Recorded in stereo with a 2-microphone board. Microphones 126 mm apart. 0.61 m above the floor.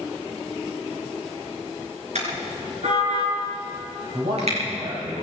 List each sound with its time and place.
2.1 s a car horn: 70° right (ahead or behind), 4.5 m; by 4.6 s 60° right (ahead or behind), 6 m
4.1 s a man speaking: 75° right (ahead or behind), 4 m